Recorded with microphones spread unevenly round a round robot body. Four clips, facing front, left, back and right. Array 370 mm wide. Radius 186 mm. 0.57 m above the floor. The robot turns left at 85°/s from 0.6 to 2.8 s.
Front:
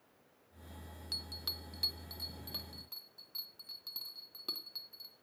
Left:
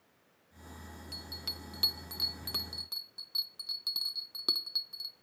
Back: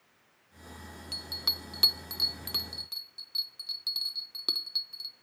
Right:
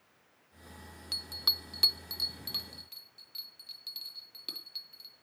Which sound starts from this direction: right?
A bell, at 1.1 s.